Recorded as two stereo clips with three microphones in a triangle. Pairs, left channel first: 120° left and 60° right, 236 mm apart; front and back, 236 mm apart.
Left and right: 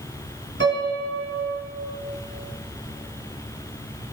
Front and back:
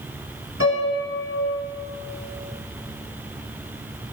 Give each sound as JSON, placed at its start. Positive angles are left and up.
{"t": 0.6, "sound": "a piano", "azimuth_deg": -25, "distance_m": 2.0}